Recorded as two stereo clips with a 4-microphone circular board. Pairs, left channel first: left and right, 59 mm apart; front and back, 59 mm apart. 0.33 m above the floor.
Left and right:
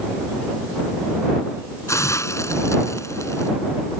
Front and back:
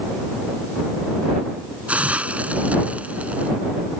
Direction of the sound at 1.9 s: 115° left.